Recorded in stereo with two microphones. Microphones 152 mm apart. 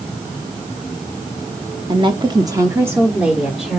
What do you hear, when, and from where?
1.9 s a woman speaking: 30° right (ahead or behind), 1.1 m; by 3.8 s 5° right (ahead or behind), 1.8 m